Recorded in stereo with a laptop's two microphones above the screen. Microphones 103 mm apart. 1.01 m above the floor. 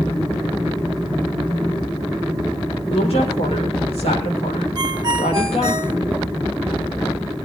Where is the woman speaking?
75° left (ahead or behind), 4 m.